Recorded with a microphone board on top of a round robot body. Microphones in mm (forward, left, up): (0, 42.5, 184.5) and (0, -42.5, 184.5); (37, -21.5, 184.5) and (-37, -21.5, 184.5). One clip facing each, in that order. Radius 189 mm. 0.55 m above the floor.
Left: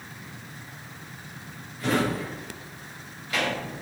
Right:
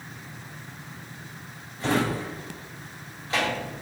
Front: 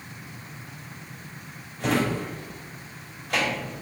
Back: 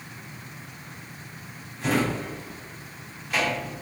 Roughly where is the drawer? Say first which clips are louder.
Even, even; ahead right.